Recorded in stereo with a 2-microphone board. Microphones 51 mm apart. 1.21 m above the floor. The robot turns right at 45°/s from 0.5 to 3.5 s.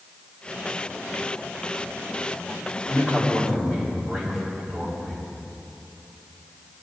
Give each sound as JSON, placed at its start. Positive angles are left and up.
{"t": 2.9, "sound": "a man speaking", "side_deg": 35, "distance_m": 3.5}